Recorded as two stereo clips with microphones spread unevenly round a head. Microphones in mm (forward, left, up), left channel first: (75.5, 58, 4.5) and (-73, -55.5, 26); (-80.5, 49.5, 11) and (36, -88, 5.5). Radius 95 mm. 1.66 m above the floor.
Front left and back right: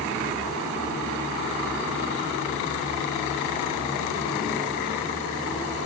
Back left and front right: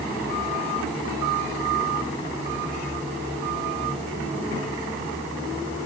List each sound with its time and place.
Only background noise.